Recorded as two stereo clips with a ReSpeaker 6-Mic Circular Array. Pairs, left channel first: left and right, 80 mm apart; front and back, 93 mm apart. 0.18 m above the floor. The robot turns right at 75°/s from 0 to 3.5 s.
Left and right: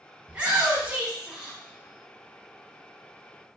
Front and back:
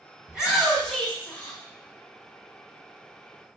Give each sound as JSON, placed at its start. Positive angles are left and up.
{"t": 0.3, "sound": "a shout", "azimuth_deg": -120, "distance_m": 1.2}